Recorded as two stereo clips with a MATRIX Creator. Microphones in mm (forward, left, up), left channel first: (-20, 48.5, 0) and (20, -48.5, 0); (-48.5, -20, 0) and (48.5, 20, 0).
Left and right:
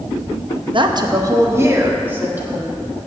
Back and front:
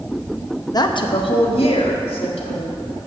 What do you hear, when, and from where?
0.7 s a woman speaking: 105° right, 0.8 m; by 2.7 s 145° right, 2.5 m